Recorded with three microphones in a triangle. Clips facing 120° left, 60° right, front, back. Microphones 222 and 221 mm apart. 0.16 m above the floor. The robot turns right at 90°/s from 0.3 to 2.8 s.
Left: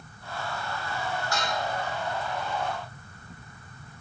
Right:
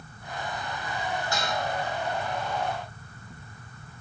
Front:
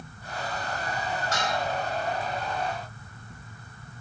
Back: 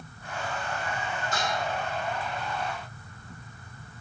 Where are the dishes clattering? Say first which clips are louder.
Even, even; 5° left, 4.5 m; by 1.6 s 30° left, 4.5 m.